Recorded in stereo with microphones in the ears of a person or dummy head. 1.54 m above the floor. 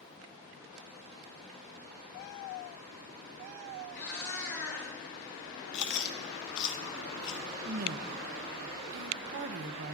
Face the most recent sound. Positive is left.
turn(degrees=-50)  # may be behind; listen again after turning